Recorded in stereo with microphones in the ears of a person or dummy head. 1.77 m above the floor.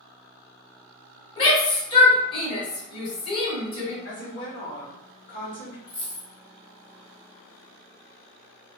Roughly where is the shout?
Left.